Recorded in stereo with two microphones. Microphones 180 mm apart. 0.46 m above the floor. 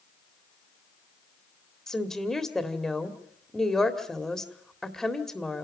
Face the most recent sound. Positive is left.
turn(degrees=5)  # may be behind; listen again after turning